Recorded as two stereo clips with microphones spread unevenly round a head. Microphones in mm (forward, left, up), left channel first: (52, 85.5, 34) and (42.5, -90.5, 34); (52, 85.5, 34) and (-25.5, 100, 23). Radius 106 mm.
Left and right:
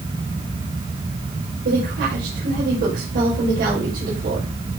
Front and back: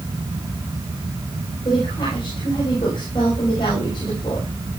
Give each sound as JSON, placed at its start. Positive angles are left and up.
{"t": 1.6, "sound": "a woman speaking", "azimuth_deg": -70, "distance_m": 6.5}